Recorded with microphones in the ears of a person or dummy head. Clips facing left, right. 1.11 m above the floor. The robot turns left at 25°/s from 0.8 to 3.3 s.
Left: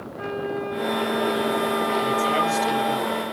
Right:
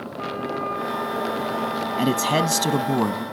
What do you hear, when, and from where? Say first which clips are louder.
0.2 s a flute: left 2 dB; 165° left, 2.5 m; by 3.0 s 110° left, 2.5 m
2.0 s a man speaking: right 2 dB; 75° right, 0.8 m; by 3.2 s 105° right, 0.8 m